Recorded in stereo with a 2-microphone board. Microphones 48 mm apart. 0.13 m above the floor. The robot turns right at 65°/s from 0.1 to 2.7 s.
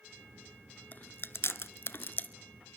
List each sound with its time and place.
0.9 s chewing: 35° left (ahead or behind), 0.6 m; by 2.3 s 30° left (ahead or behind), 0.6 m